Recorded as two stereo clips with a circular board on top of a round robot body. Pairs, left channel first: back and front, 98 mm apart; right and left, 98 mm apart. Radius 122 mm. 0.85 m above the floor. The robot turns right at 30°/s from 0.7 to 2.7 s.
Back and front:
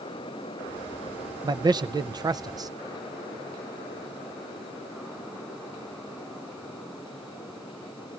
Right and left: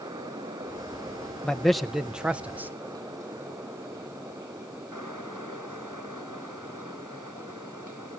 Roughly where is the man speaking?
Ahead.